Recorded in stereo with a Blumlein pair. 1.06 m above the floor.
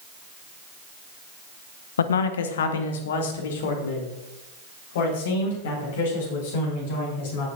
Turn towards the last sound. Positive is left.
turn(degrees=55)